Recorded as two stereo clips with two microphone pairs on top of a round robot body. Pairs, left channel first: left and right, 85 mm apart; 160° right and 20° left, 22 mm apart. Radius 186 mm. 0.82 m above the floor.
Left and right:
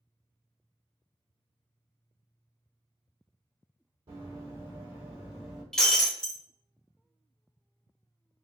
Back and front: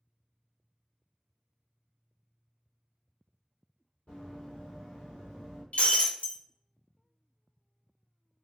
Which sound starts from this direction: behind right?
Running footsteps, at 4.1 s.